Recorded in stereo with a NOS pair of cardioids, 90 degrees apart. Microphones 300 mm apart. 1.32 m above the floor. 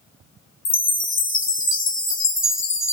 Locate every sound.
0.7 s a chime: 45° left, 0.9 m